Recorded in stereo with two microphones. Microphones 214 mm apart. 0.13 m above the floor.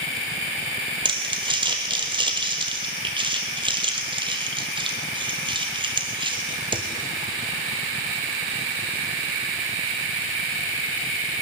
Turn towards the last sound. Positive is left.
turn(degrees=-20)  # may be behind; listen again after turning